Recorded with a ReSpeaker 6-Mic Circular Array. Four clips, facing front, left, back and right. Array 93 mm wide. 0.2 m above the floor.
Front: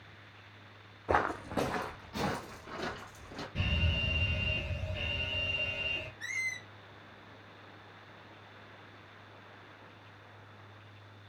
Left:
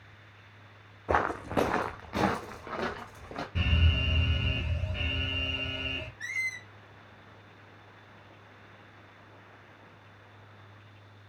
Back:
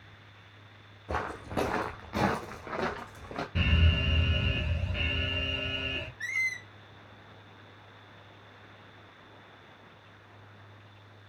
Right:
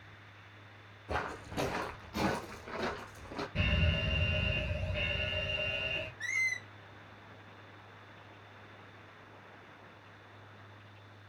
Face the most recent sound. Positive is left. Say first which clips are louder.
# right 1 dB, back 7 dB
turn(degrees=160)